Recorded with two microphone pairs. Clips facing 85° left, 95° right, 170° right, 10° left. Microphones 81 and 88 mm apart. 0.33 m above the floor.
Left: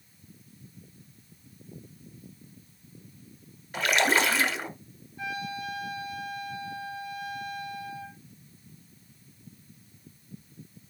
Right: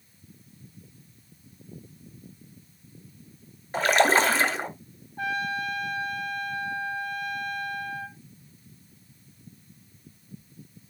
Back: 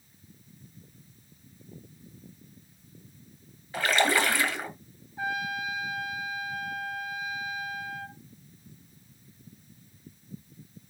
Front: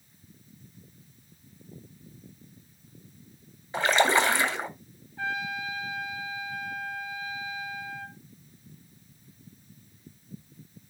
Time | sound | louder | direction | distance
3.7 | a splash | right 4 dB, front 2 dB | 50° right | 1.8 m
5.2 | a trumpet | right 6 dB, back 1 dB | 100° right | 1.6 m